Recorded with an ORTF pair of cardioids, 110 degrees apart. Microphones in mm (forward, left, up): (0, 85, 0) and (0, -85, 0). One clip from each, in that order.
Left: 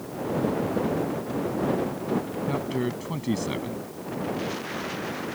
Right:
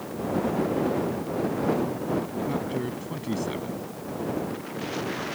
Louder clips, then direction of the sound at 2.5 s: Left 1 dB; 30° left.